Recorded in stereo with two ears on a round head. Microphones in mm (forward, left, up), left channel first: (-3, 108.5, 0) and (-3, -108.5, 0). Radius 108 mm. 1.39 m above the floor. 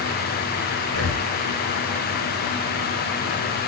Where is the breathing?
75° left (ahead or behind), 1.9 m.